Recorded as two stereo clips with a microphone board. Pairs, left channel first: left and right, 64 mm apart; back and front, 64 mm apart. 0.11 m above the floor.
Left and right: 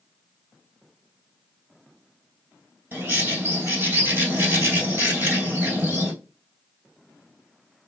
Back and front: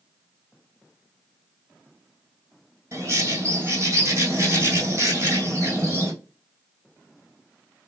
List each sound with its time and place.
2.9 s a bird: 40° right, 2.5 m